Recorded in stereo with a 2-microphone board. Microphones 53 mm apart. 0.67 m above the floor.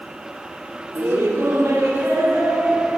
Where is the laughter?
60° right (ahead or behind), 1.5 m; by 3.0 s 55° right (ahead or behind), 2.5 m.